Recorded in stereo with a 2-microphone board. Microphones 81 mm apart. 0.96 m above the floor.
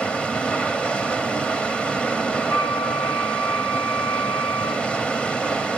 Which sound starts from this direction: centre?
Running water, at 0.0 s.